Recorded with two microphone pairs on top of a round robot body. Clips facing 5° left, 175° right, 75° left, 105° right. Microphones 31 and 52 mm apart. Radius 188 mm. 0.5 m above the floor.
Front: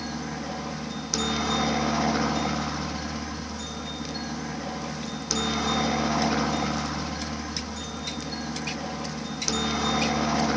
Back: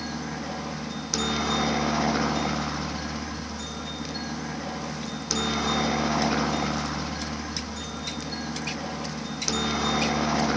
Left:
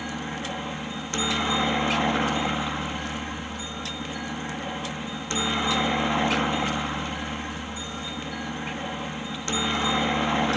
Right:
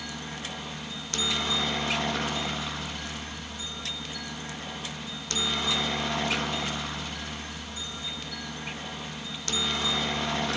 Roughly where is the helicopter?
Left.